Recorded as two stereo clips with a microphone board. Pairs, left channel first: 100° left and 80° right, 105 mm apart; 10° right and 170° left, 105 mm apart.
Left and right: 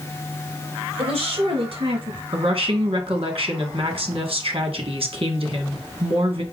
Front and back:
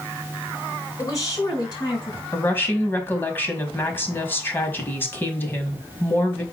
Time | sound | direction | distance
1.0 | a woman speaking | 70° right | 4.5 m
2.3 | a woman speaking | 80° right | 2 m